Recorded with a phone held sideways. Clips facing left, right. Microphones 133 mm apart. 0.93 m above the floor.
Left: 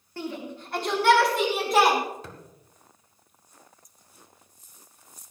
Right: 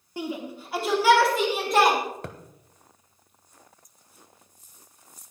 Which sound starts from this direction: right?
A thud, at 2.2 s.